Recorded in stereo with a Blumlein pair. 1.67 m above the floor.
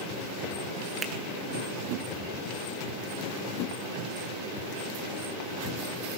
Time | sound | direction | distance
1.0 | a finger snap | 20° right | 1.7 m